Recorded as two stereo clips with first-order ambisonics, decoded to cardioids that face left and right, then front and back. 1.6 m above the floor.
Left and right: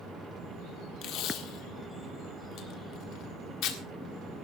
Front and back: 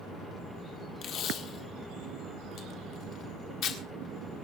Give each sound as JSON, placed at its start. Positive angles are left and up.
{"t": 1.0, "sound": "tape being pulled", "azimuth_deg": 50, "distance_m": 1.6}